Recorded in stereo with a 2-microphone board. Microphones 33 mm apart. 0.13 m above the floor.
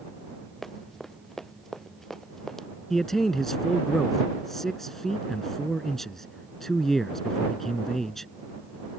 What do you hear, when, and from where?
0.6 s running footsteps: 10° left (ahead or behind)
2.9 s a man speaking: 10° left (ahead or behind)